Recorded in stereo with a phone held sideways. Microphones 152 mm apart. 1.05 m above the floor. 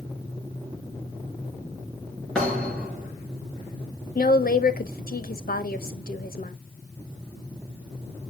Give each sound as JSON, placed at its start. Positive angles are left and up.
{"t": 2.4, "sound": "a thud", "side_deg": 5, "distance_m": 4.5}
{"t": 4.2, "sound": "a woman speaking", "side_deg": 85, "distance_m": 1.0}